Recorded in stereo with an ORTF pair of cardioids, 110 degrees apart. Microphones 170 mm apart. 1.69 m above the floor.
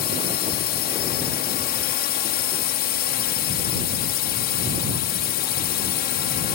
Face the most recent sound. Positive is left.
turn(degrees=70)